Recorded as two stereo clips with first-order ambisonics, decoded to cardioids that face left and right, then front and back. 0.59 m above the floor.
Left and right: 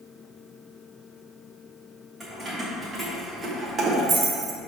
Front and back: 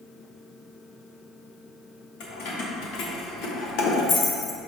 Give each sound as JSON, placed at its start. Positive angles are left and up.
{"t": 2.2, "sound": "keys jangling", "azimuth_deg": -5, "distance_m": 2.0}